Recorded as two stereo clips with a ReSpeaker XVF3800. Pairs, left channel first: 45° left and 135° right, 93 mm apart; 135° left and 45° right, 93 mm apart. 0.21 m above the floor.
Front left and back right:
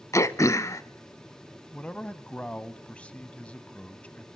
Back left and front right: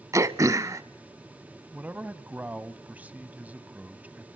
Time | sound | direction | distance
0.1 | throat clearing | straight ahead | 0.8 m
1.7 | a man speaking | 5° right | 1.0 m